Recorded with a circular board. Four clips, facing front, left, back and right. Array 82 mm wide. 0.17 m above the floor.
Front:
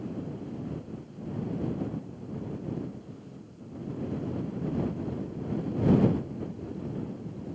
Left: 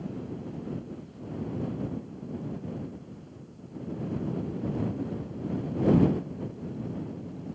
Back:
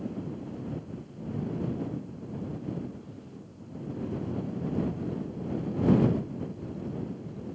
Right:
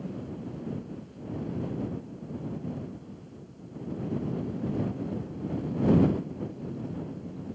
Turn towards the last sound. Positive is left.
No sound to turn to.